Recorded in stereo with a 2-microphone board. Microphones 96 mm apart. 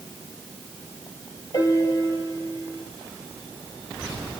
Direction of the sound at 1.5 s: 40° left (ahead or behind).